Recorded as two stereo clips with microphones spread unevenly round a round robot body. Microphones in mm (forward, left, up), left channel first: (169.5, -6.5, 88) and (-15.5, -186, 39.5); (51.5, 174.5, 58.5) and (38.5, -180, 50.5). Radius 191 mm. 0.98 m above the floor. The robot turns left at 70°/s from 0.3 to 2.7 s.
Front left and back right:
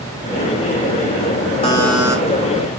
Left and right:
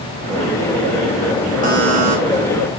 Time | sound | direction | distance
1.6 | a buzzer | 25° right | 6 m